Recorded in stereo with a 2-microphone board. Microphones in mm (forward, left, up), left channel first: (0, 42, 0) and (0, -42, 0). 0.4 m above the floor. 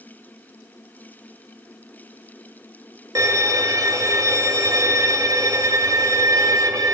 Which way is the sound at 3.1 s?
45° right (ahead or behind).